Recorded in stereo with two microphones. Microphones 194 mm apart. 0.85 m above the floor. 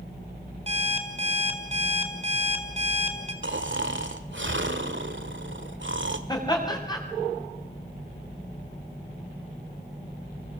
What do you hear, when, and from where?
0.7 s an alarm clock: 30° right (ahead or behind), 4 m
3.4 s snoring: 75° right (ahead or behind), 1.8 m
6.3 s laughter: 20° left (ahead or behind), 7 m